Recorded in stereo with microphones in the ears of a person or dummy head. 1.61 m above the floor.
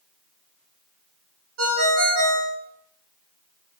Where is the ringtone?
55° right (ahead or behind), 1.4 m.